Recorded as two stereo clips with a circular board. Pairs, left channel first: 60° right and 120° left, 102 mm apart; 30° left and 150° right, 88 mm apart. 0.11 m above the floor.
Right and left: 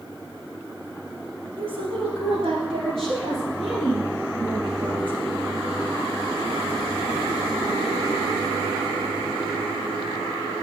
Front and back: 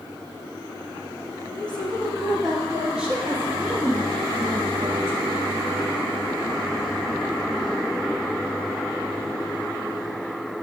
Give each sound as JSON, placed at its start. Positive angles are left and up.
{"t": 1.6, "sound": "a woman speaking", "azimuth_deg": 105, "distance_m": 2.0}